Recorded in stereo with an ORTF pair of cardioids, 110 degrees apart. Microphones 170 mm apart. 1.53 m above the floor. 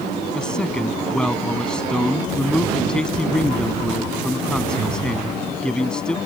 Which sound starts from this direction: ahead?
A man speaking, at 0.3 s.